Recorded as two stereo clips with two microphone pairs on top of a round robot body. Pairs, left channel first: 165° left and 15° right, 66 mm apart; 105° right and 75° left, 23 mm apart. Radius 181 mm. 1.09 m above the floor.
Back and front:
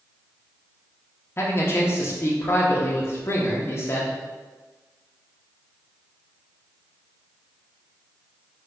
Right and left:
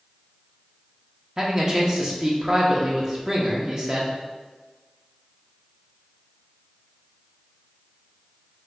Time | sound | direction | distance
1.4 | a man speaking | 115° left | 0.9 m